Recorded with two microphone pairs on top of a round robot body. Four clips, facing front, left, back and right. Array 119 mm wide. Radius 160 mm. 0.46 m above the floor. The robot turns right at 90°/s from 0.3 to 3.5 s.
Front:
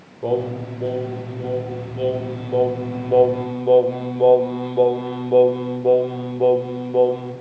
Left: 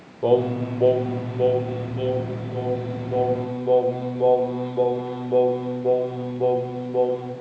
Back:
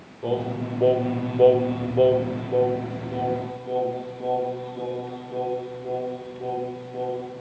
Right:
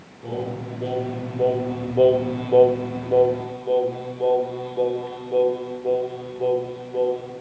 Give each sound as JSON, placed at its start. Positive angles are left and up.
{"t": 0.2, "sound": "singing", "azimuth_deg": 75, "distance_m": 1.0}